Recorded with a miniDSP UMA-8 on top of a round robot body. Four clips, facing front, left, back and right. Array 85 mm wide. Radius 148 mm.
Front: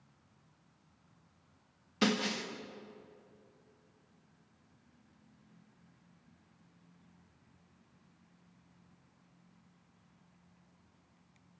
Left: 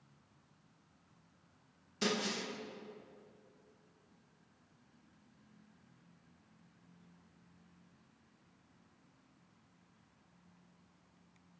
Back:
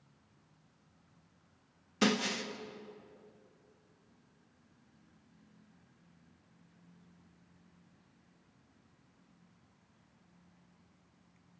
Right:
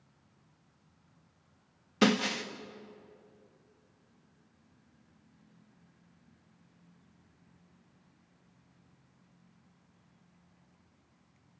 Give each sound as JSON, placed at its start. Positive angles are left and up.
{"t": 2.0, "sound": "breaking glass", "azimuth_deg": -95, "distance_m": 1.2}